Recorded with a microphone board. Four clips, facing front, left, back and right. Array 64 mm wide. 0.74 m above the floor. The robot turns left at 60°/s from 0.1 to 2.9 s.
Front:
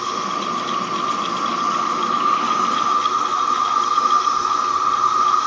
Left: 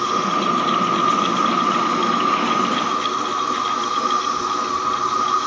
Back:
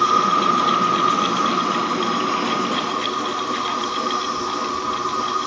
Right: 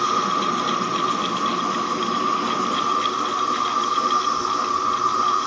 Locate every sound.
0.0 s an insect: 155° right, 1.7 m; by 5.5 s 40° left, 1.7 m